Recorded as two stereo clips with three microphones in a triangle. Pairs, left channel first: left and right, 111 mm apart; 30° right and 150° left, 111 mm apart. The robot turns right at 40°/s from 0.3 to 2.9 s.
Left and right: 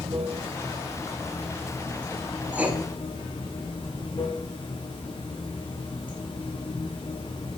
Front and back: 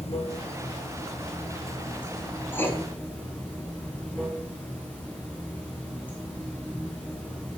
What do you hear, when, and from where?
0.0 s running water: 60° right, 2.5 m; by 7.6 s 45° left, 2.5 m
2.5 s writing: 40° right, 1.3 m; by 2.8 s 30° right, 1.3 m